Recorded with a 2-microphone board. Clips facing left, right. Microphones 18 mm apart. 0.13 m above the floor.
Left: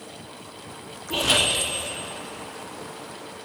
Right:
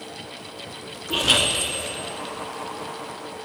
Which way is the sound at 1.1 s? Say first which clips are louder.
Right 2 dB; 30° right (ahead or behind).